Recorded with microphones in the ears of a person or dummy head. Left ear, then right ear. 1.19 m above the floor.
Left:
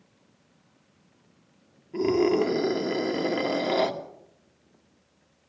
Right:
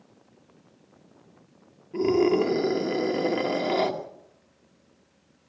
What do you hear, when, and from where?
1.9 s a scream: 5° left (ahead or behind), 2.5 m